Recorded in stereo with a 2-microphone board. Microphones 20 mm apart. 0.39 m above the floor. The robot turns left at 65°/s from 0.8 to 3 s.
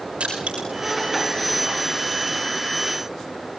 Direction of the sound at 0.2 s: 85° right.